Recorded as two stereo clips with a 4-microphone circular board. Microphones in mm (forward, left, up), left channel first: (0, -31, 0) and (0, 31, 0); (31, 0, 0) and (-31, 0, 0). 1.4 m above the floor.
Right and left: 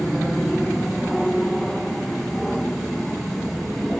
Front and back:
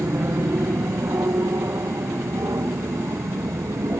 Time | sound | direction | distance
0.0 | an aircraft | straight behind | ?